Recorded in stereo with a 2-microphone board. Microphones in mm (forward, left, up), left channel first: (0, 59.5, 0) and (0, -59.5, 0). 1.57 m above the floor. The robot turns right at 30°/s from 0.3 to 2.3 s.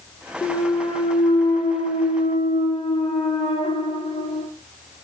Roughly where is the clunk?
Ahead left.